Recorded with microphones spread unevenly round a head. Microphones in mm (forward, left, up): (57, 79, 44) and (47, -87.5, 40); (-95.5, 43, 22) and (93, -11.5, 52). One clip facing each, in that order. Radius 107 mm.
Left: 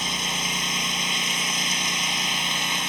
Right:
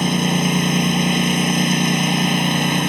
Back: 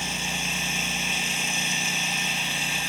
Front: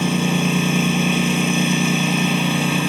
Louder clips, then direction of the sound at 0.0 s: Right 14 dB, front 16 dB; 55° right.